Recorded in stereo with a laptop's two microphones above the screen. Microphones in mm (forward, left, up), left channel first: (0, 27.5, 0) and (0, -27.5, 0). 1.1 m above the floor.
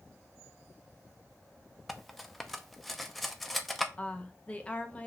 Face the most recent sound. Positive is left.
turn(degrees=20)  # may be behind; listen again after turning